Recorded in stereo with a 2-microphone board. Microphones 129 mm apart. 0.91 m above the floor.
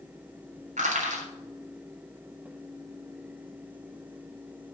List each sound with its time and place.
0.8 s crushing: 80° right, 3.5 m